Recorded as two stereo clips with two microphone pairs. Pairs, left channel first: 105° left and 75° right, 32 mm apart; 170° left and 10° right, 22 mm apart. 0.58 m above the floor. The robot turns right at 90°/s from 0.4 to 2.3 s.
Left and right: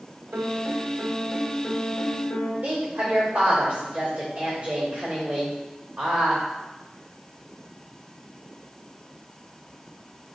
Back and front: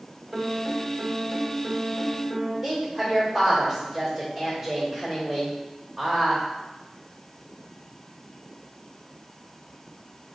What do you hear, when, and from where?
0.3 s a piano: 80° right, 0.7 m; by 2.5 s 90° left, 0.7 m
2.6 s a woman speaking: 105° right, 1.9 m